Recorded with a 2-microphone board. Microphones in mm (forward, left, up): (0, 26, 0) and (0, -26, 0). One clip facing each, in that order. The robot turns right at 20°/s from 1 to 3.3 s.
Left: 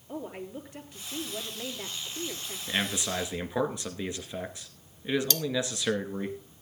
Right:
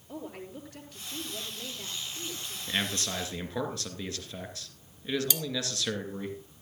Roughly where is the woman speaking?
Ahead.